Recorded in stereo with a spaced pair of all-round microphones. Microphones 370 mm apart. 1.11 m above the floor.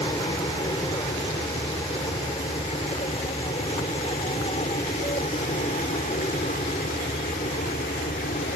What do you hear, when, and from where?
0.0 s an aircraft: 10° left (ahead or behind); by 8.6 s 25° left (ahead or behind)